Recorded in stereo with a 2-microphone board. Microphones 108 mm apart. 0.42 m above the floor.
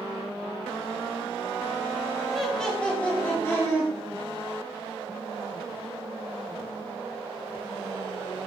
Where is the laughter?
Centre (ahead or behind), 1.6 m; by 3.9 s 30° left (ahead or behind), 1.9 m.